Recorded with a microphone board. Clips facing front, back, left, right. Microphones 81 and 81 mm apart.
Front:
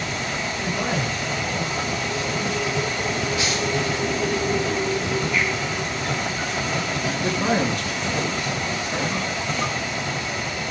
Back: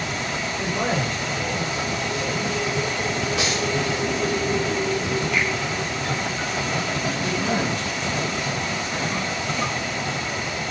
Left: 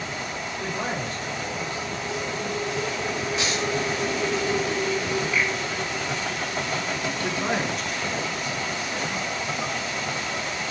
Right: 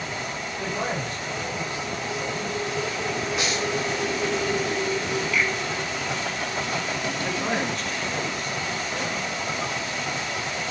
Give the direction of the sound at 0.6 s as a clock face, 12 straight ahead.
6 o'clock.